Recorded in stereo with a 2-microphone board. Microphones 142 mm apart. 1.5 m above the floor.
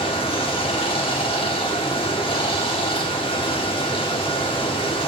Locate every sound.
0.0 s running water: 35° left (ahead or behind), 1.2 m